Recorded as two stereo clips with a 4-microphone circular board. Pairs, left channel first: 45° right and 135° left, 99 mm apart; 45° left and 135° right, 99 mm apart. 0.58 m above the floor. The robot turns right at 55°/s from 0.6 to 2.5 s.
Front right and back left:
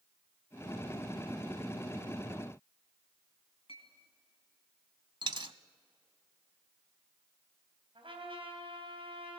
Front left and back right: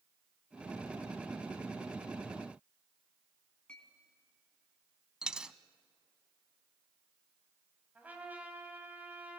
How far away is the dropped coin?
About 0.6 m.